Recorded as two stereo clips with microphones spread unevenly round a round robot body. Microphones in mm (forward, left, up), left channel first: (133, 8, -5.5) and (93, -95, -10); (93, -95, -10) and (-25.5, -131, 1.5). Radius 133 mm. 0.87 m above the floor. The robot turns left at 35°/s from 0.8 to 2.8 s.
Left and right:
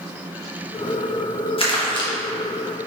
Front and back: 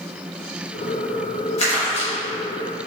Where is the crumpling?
45° left, 0.9 m; by 2.1 s 30° left, 0.9 m.